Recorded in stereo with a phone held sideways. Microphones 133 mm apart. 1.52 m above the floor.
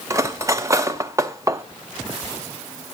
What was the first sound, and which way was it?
Cutlery clinking, 25° right (ahead or behind).